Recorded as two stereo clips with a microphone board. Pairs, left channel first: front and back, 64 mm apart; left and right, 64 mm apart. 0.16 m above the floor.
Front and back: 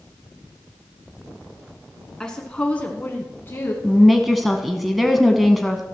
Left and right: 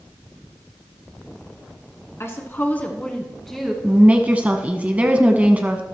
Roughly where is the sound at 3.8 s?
Right.